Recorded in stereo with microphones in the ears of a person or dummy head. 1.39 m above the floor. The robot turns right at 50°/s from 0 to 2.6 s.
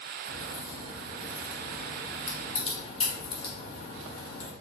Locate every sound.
0.2 s a crack: 55° right (ahead or behind), 0.9 m; by 4.5 s 35° left (ahead or behind), 0.9 m